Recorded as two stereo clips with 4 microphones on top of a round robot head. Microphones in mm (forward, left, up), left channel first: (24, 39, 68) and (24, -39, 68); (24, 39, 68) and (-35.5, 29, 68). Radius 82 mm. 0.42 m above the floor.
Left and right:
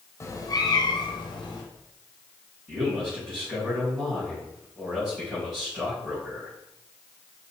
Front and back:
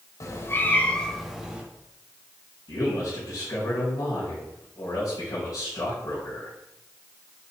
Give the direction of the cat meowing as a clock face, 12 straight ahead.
11 o'clock.